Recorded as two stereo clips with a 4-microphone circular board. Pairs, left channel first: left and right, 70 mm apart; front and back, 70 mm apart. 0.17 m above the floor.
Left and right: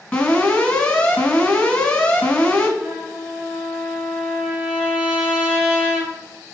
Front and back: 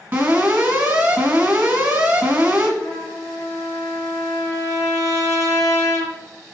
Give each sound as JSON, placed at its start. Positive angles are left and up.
{"t": 0.1, "sound": "an alarm", "azimuth_deg": 145, "distance_m": 1.2}
{"t": 2.8, "sound": "a trumpet", "azimuth_deg": -20, "distance_m": 2.0}